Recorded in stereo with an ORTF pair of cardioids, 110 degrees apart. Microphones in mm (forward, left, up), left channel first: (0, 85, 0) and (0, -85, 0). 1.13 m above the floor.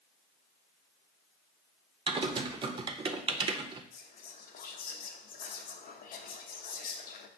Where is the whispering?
55° left, 0.9 m.